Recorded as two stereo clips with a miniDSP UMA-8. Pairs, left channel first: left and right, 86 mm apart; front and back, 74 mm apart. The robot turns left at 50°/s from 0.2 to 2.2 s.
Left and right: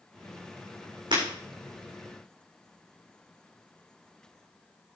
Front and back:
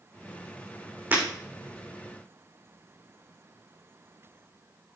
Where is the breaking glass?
110° right, 7 m; by 1.2 s 120° right, 7 m.